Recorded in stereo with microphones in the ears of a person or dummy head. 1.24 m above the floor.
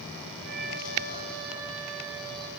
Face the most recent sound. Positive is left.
turn(degrees=-65)  # may be behind; listen again after turning